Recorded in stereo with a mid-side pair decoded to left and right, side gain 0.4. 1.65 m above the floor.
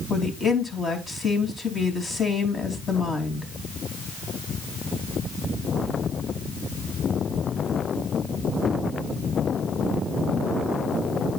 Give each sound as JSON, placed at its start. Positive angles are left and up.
{"t": 0.1, "sound": "a woman speaking", "azimuth_deg": 45, "distance_m": 3.5}